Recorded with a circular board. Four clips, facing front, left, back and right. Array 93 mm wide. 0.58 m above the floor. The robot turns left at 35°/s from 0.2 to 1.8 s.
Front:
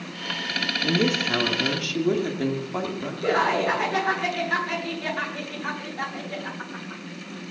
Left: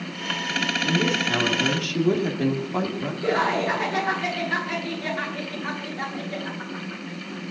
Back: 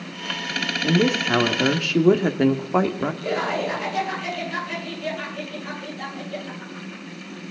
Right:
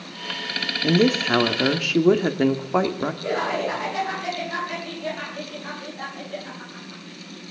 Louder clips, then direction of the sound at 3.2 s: Left 4 dB, front 6 dB; 15° left.